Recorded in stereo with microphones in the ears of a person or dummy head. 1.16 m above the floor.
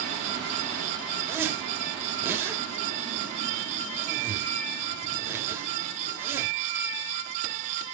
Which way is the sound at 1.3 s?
15° right (ahead or behind).